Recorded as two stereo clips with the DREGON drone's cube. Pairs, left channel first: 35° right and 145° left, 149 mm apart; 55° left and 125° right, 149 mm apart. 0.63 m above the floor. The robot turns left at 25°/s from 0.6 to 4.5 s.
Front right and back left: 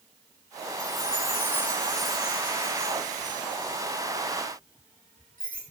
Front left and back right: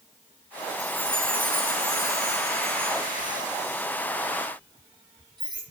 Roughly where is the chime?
Right.